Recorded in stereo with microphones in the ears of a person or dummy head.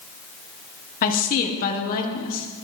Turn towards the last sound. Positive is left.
turn(degrees=45)  # may be behind; listen again after turning